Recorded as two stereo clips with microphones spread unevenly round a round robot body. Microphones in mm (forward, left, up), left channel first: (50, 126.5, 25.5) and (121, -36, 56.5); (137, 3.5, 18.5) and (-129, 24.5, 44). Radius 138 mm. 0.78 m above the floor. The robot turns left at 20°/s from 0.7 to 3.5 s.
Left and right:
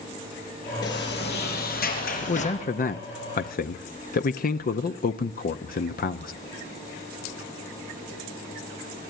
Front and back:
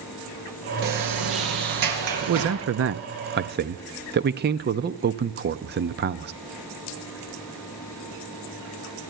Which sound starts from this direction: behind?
A sliding door, at 0.8 s.